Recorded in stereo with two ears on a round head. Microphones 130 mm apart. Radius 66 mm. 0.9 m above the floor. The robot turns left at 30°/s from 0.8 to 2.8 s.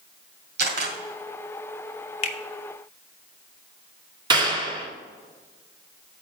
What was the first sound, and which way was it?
A camera shutter, 80° right.